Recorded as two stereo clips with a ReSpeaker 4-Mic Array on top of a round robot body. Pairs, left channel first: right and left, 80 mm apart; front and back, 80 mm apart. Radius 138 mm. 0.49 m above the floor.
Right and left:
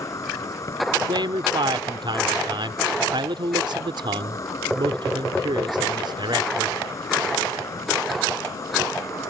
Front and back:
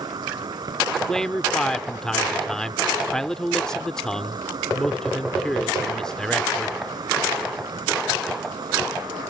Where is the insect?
140° right.